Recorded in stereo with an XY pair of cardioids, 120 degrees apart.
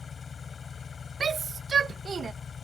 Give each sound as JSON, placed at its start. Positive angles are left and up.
{"t": 0.0, "sound": "an engine running", "azimuth_deg": 35}
{"t": 1.2, "sound": "a shout", "azimuth_deg": -35}